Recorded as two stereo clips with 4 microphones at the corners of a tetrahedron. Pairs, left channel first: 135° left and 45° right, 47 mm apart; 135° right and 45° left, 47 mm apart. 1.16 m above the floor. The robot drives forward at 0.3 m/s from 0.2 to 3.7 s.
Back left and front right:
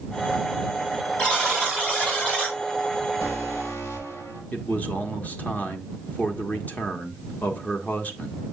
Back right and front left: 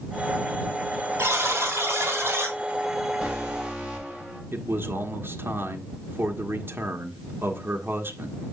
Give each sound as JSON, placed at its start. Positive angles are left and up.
{"t": 1.2, "sound": "a buzzer", "azimuth_deg": 65, "distance_m": 4.0}
{"t": 3.2, "sound": "an alarm", "azimuth_deg": 115, "distance_m": 5.0}
{"t": 4.5, "sound": "a man speaking", "azimuth_deg": 80, "distance_m": 1.3}